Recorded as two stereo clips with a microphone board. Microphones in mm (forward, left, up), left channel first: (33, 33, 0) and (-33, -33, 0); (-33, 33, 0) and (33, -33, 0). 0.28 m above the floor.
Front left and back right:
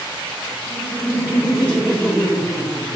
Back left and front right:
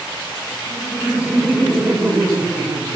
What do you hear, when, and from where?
0.7 s laughter: 115° left, 1.6 m; by 3.0 s 45° right, 2 m